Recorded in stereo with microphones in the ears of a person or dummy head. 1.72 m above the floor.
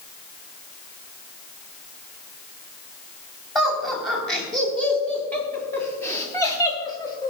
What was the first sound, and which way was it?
Laughter, centre (ahead or behind).